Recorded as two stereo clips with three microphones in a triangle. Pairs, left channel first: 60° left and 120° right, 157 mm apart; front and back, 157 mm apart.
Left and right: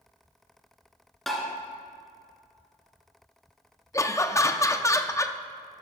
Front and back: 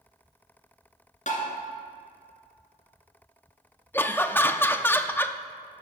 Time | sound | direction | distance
1.3 | tapping | 30° right | 2 m
3.9 | laughter | 50° left | 0.5 m